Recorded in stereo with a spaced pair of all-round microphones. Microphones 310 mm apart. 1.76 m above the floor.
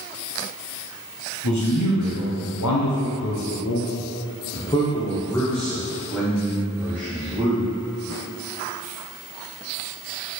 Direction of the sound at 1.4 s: 65° left (ahead or behind).